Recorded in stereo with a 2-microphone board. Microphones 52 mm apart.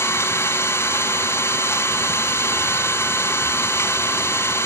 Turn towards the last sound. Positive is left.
turn(degrees=65)  # may be behind; listen again after turning